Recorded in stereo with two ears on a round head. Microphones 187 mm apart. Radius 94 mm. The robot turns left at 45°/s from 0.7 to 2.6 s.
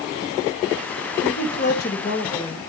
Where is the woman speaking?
80° left, 2.5 m; by 2.6 s 20° left, 2.5 m.